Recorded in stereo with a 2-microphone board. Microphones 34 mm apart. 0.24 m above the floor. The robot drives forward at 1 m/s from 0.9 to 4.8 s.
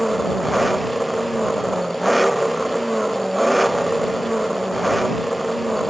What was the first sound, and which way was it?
An engine running, centre (ahead or behind).